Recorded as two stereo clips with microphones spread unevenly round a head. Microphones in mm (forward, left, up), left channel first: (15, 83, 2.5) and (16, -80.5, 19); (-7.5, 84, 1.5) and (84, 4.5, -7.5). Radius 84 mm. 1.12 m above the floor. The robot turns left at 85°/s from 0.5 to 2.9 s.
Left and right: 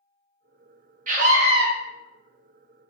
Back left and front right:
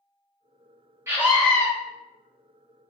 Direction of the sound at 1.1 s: 95° right.